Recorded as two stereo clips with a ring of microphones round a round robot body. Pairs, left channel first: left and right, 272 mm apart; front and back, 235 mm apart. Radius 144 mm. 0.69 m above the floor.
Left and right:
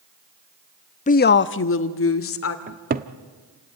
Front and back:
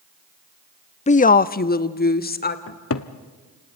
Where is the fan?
I don't hear a fan.